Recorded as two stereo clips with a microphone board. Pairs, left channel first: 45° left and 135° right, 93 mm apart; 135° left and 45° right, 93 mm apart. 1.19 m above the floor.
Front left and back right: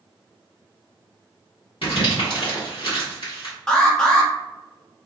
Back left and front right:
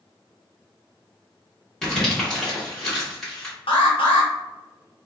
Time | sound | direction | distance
1.8 | crumpling | 55° left | 1.9 m
3.7 | an alarm | 125° left | 0.9 m